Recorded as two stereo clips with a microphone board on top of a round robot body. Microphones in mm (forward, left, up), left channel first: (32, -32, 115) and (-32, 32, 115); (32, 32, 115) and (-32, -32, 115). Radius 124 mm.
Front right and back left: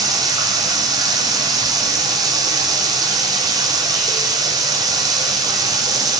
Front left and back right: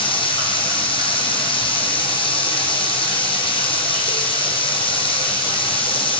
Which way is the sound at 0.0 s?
80° left.